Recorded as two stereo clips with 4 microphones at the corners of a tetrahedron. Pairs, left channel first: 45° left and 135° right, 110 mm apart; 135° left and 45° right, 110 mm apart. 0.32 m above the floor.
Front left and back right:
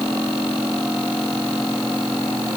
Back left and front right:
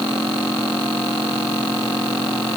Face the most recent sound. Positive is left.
No sound to turn to.